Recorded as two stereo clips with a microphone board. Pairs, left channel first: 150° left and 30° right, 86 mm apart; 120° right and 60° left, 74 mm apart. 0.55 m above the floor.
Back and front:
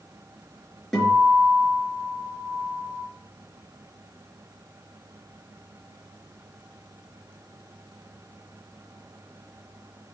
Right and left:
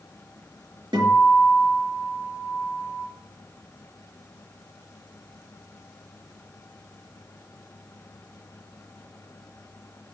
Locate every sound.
0.9 s a guitar: 60° left, 5 m